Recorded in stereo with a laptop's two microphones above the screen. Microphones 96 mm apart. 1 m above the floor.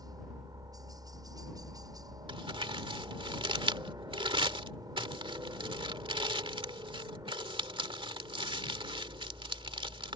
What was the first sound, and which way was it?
A helicopter, 40° right (ahead or behind).